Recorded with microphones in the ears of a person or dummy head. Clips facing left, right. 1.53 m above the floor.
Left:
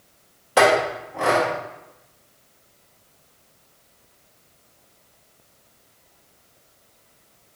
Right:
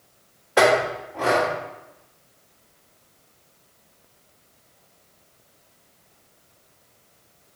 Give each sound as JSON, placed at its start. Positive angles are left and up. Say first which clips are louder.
{"t": 0.6, "sound": "a clink", "louder": "left 1 dB", "side_deg": 40, "distance_m": 1.4}